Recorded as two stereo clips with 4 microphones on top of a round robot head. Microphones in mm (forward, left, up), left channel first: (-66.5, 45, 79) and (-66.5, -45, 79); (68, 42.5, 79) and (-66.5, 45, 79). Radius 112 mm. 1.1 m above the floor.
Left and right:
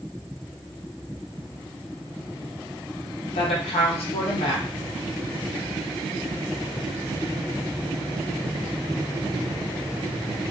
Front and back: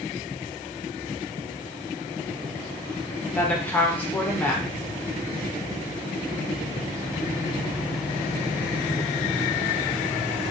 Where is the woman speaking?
75° left, 0.7 m.